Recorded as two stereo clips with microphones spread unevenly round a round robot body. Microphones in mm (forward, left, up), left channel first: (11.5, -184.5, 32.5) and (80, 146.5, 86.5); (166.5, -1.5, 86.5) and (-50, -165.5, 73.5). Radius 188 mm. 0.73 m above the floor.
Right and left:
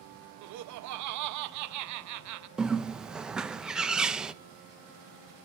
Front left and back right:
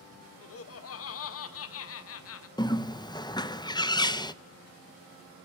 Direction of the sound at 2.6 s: 25° right.